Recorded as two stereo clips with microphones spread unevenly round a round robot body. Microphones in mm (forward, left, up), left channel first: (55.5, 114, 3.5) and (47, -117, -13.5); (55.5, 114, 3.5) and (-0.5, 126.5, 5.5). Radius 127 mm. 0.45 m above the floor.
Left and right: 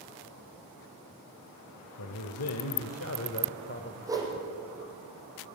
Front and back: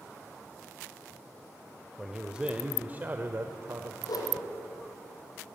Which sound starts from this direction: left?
A man speaking, at 2.0 s.